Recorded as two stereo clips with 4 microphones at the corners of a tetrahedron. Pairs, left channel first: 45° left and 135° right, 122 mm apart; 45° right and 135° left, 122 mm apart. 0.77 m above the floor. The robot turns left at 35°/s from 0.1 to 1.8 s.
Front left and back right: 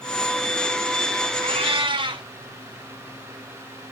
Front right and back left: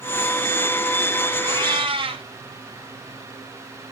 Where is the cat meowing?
170° right, 0.9 m; by 2.2 s 175° left, 0.9 m.